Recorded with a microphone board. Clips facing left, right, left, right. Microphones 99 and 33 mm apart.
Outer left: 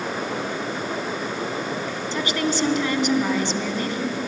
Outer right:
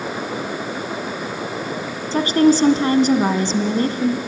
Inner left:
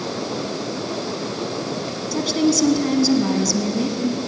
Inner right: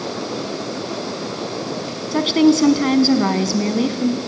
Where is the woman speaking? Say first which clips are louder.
Outer right 11 dB, inner right 5 dB; 40° right (ahead or behind), 1.3 m.